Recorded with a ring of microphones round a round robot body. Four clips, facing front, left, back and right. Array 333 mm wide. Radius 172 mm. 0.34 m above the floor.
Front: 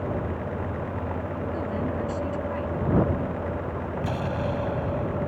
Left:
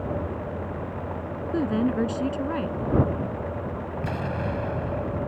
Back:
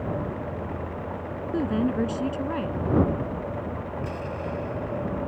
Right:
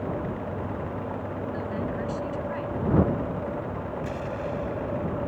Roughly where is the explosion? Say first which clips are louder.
Left 5 dB, front 6 dB; ahead left.